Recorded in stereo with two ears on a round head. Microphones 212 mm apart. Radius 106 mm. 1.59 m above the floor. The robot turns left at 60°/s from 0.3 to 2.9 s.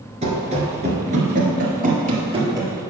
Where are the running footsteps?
30° right (ahead or behind), 1.7 m; by 2.7 s 10° right (ahead or behind), 2.5 m.